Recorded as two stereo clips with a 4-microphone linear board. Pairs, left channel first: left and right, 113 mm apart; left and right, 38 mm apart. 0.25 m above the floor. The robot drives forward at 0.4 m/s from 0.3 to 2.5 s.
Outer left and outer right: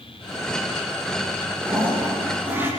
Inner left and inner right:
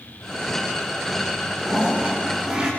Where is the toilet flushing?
15° right (ahead or behind), 9 m.